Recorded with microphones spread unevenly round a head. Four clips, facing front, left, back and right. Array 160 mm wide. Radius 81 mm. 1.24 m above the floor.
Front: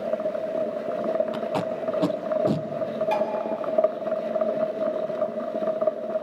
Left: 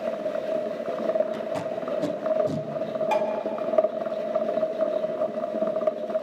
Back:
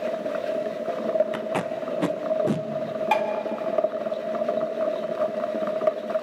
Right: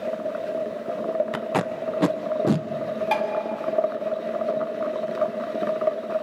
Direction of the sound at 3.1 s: 165° right.